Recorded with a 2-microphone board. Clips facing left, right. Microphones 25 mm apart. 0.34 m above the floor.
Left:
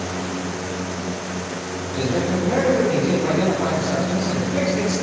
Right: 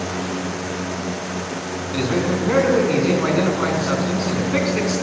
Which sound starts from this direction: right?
A man speaking, at 1.9 s.